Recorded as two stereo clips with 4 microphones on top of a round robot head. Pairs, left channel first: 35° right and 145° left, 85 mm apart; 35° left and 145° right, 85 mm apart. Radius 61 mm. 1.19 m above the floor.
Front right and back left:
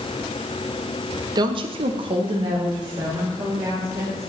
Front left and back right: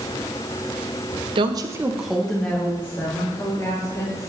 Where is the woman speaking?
170° right, 1.0 m; by 4.3 s 90° left, 4 m.